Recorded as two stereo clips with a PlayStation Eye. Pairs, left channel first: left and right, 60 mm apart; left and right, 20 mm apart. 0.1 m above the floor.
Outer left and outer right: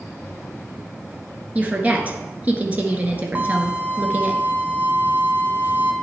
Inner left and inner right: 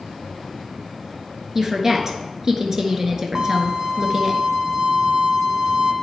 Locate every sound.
1.6 s a woman speaking: 25° right (ahead or behind), 1.4 m
3.4 s a violin: 30° right (ahead or behind), 1.4 m